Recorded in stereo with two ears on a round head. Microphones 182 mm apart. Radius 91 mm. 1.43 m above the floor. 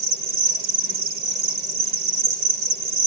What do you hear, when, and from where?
0.0 s an insect: 50° right (ahead or behind), 1.3 m